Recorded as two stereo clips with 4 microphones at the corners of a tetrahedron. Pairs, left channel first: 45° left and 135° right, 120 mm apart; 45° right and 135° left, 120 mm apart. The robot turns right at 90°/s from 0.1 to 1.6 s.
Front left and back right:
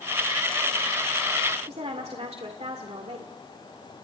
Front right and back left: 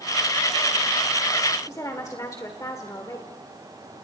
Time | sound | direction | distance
1.7 | a woman speaking | 105° right | 1.9 m